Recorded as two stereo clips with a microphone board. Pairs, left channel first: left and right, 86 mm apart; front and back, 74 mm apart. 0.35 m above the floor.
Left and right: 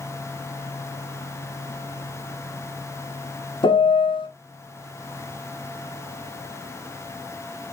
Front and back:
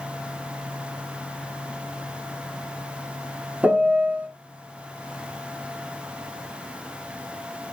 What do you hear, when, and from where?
3.6 s a piano: 105° left, 0.9 m